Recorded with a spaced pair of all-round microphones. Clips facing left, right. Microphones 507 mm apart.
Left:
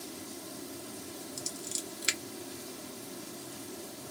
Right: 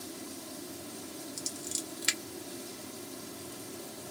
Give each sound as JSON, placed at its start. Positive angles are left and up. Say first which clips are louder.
{"t": 1.4, "sound": "scissors", "louder": "right 1 dB", "side_deg": -20, "distance_m": 0.5}